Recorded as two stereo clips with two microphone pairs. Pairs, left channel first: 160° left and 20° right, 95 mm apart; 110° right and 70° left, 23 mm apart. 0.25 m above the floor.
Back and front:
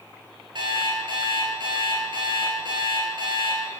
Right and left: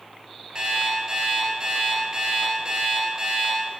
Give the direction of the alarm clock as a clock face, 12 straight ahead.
12 o'clock.